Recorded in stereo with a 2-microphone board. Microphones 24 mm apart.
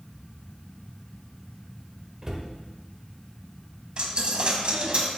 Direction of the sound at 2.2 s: 30° right (ahead or behind).